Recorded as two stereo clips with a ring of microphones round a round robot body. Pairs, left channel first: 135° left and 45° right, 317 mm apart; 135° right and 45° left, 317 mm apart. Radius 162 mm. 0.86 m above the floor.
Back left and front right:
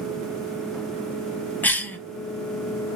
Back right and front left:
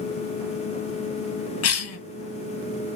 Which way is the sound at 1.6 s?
145° right.